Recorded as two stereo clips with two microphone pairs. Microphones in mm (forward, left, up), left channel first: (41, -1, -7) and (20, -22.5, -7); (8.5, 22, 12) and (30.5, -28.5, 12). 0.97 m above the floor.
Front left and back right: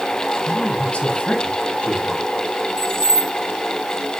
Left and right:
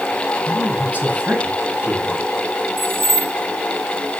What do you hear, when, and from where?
0.5 s a man speaking: straight ahead, 6 m
2.8 s keys jangling: 20° right, 2 m